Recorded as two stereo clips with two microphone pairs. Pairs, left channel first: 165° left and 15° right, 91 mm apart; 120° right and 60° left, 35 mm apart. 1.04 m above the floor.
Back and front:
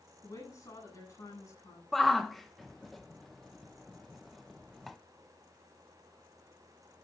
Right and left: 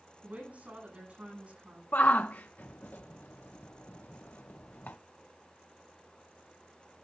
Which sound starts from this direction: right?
A shout, at 1.9 s.